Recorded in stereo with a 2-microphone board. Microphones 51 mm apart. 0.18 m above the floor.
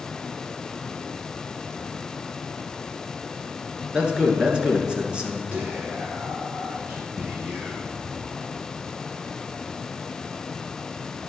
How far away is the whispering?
About 3.5 m.